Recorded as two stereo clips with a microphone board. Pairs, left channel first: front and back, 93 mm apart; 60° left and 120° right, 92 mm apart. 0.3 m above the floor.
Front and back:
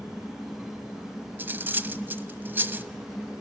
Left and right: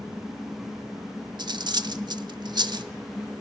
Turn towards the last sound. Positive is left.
turn(degrees=-115)